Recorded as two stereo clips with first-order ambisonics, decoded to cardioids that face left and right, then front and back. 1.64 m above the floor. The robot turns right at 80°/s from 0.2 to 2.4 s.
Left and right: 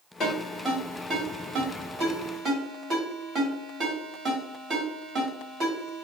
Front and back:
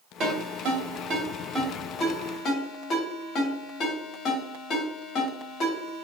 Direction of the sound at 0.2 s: 135° left.